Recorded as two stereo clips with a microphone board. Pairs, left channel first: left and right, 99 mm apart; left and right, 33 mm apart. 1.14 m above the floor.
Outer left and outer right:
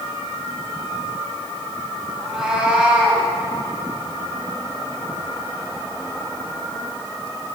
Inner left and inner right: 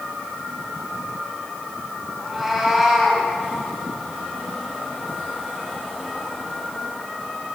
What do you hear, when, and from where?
2.2 s a cat meowing: 5° right (ahead or behind), 3 m; by 3.2 s 15° right (ahead or behind), 2.5 m